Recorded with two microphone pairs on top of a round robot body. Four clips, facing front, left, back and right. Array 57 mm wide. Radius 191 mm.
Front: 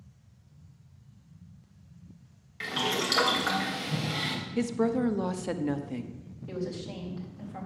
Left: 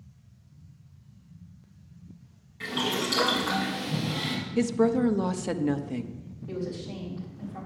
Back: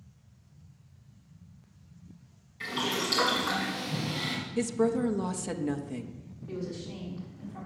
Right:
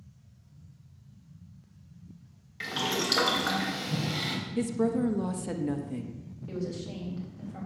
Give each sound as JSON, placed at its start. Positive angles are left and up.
{"t": 2.6, "sound": "boiling", "azimuth_deg": -35, "distance_m": 3.5}
{"t": 4.6, "sound": "a woman speaking", "azimuth_deg": 65, "distance_m": 1.0}
{"t": 6.5, "sound": "a woman speaking", "azimuth_deg": -20, "distance_m": 4.0}